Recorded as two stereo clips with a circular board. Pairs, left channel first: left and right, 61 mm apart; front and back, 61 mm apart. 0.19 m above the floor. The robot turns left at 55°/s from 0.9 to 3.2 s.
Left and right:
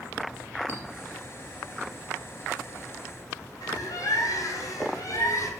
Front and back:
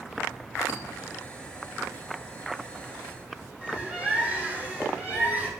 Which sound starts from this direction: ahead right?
A clink, at 0.7 s.